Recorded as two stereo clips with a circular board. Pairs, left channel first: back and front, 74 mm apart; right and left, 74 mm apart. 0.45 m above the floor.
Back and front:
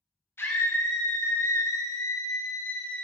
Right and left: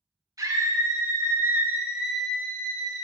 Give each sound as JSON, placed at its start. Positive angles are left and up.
{"t": 0.4, "sound": "a scream", "azimuth_deg": 125, "distance_m": 3.0}